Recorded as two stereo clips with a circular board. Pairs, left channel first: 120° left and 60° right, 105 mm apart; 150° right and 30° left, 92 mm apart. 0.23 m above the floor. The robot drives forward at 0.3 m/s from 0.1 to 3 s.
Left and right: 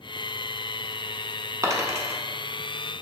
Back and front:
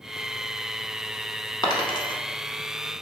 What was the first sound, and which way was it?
A dropped coin, 115° right.